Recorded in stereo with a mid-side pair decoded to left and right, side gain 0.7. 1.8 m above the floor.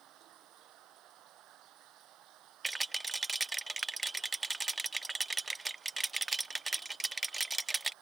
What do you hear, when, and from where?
0.0 s running water: 50° right
2.6 s a rattle: 10° right